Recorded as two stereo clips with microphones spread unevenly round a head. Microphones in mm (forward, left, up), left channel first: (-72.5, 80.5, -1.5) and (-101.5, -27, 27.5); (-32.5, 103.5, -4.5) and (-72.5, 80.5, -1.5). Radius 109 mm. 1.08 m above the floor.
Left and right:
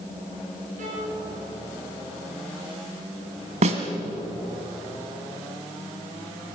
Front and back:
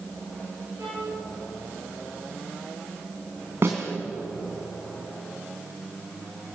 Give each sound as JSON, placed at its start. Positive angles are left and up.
{"t": 0.8, "sound": "a violin", "azimuth_deg": -75, "distance_m": 6.5}
{"t": 3.6, "sound": "a snare drum", "azimuth_deg": -90, "distance_m": 2.5}